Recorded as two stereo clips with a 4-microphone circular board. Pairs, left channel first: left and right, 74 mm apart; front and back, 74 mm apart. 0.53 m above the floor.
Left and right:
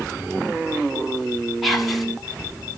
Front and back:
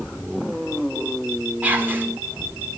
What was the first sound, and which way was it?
Whispering, 175° left.